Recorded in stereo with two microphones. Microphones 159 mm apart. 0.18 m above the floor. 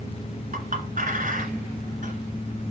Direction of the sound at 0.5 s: 55° right (ahead or behind).